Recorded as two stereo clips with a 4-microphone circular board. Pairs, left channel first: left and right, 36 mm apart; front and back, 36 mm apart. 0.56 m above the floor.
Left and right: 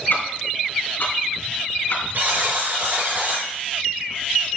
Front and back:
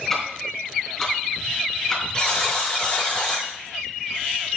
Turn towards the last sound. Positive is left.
turn(degrees=-70)